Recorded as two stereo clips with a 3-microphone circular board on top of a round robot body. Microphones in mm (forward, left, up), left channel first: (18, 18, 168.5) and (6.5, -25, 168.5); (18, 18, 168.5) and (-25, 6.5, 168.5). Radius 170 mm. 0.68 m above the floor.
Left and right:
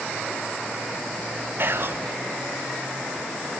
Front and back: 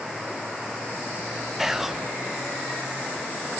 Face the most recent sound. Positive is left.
turn(degrees=-85)